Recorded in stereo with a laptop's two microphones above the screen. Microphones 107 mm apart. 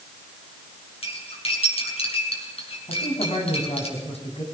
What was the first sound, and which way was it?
Cutlery clinking, 65° left (ahead or behind).